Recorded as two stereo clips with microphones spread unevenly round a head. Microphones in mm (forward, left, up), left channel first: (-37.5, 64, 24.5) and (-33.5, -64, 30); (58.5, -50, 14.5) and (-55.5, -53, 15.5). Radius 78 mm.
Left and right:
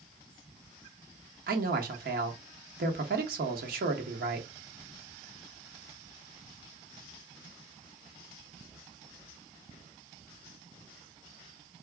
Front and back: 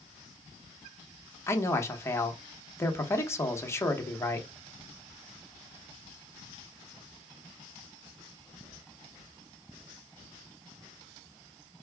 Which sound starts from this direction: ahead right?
A man speaking, at 1.5 s.